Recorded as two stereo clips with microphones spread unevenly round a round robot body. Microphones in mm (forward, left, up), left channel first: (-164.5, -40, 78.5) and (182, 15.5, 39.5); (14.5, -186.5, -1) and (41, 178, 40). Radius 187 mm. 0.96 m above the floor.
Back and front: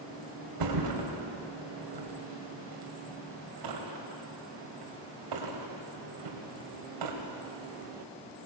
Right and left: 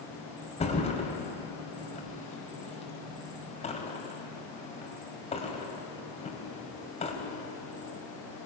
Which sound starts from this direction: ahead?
A thud, at 0.6 s.